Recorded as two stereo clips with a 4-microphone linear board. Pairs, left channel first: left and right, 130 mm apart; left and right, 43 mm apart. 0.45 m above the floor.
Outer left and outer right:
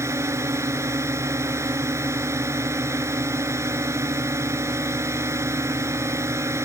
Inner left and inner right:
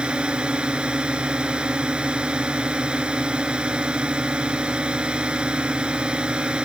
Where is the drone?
20° right (ahead or behind).